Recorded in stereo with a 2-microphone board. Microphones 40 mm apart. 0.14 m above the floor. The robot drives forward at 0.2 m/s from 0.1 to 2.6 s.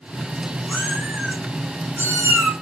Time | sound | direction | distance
0.7 | a cat meowing | 50° right (ahead or behind) | 0.9 m